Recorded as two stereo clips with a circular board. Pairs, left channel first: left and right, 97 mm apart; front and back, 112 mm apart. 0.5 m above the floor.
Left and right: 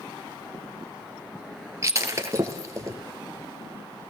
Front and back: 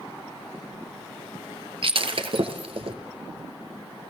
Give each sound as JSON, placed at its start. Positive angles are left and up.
{"t": 1.8, "sound": "breaking glass", "azimuth_deg": -145, "distance_m": 2.0}